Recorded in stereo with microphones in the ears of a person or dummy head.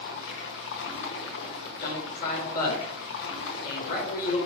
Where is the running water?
70° left (ahead or behind), 1.1 m.